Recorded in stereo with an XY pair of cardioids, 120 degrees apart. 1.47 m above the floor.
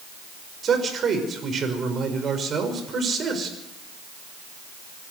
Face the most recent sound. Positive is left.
turn(degrees=-40)